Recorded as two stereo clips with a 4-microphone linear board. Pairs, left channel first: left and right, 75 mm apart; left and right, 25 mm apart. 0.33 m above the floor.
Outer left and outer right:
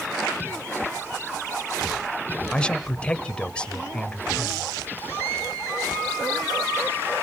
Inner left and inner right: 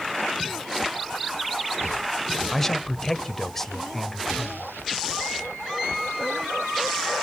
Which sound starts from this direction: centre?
A man speaking, at 2.5 s.